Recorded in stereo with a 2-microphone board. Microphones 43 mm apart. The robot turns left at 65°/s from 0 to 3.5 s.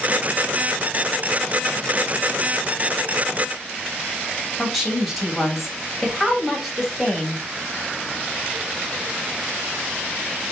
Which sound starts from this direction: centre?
A woman speaking, at 4.6 s.